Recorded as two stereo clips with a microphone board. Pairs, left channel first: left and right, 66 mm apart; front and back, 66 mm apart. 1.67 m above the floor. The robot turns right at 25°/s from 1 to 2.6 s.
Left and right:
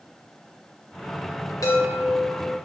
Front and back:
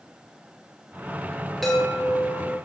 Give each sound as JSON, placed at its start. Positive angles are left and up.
{"t": 1.6, "sound": "a chime", "azimuth_deg": 85, "distance_m": 0.8}